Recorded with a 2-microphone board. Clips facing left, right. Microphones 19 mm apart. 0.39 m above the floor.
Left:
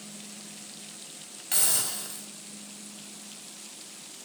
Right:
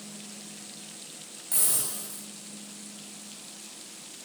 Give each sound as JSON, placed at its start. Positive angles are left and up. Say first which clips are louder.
{"t": 1.5, "sound": "a hiss", "louder": "left 3 dB", "side_deg": 45, "distance_m": 3.5}